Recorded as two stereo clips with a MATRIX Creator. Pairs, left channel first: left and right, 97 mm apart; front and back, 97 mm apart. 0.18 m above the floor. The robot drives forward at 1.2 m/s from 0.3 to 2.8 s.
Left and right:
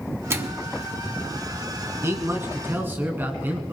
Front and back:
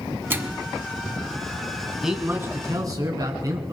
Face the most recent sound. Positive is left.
turn(degrees=-150)